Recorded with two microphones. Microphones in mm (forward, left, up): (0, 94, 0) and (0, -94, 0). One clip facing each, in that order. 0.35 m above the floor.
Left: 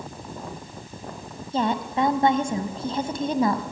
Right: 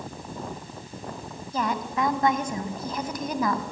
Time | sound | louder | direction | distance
1.5 | a woman speaking | left 4 dB | 25° left (ahead or behind) | 2.5 m